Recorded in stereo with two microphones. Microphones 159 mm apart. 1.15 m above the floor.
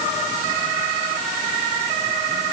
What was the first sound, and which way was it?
Only background noise.